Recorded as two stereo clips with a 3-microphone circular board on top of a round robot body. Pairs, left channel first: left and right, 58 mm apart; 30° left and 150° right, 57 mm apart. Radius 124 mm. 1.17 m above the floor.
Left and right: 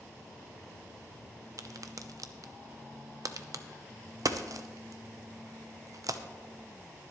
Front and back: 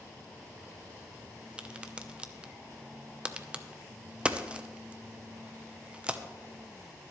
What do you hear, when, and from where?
1.6 s a crack: 80° right, 0.9 m